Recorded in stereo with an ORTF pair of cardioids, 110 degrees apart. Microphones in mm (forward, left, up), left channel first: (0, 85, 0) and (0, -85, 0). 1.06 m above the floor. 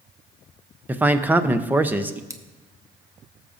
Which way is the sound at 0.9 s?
10° right.